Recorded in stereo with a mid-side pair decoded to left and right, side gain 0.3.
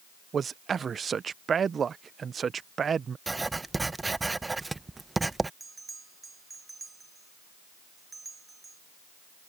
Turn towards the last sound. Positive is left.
turn(degrees=-40)